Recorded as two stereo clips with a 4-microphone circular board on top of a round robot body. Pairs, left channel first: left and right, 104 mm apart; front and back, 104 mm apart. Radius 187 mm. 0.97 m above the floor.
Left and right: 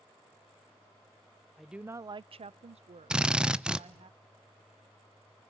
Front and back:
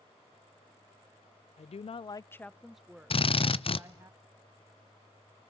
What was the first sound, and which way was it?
A woman speaking, straight ahead.